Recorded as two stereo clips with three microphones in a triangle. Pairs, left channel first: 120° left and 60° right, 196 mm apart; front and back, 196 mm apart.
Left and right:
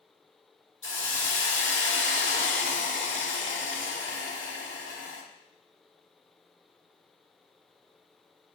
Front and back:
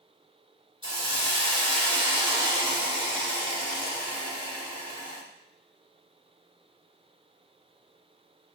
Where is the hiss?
115° left, 1.3 m.